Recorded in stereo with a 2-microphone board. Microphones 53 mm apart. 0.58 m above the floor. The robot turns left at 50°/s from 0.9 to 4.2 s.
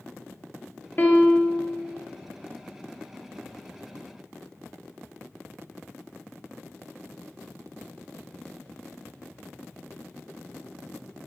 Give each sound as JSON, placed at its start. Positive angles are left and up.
{"t": 1.0, "sound": "a piano", "azimuth_deg": 60, "distance_m": 0.5}